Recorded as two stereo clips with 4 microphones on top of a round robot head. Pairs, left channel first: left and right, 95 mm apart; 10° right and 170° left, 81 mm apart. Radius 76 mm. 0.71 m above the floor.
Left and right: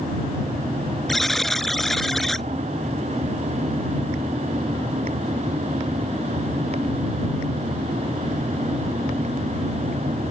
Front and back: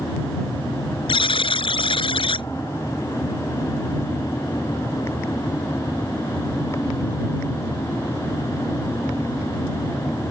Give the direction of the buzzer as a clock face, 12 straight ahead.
12 o'clock.